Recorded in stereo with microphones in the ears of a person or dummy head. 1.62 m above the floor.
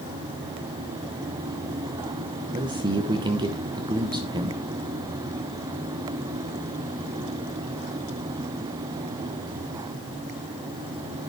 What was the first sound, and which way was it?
A man speaking, 20° right (ahead or behind).